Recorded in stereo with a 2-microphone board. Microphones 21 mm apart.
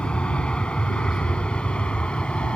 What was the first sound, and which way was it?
An aircraft, 55° left (ahead or behind).